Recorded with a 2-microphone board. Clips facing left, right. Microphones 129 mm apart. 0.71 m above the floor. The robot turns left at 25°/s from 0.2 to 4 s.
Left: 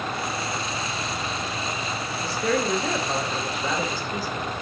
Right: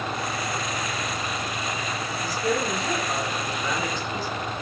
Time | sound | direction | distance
2.2 | a woman speaking | 90° left | 3 m